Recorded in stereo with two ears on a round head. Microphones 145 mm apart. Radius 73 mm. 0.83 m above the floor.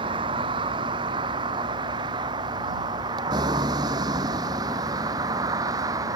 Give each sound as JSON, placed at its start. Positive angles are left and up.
{"t": 0.0, "sound": "a vehicle", "side_deg": -30}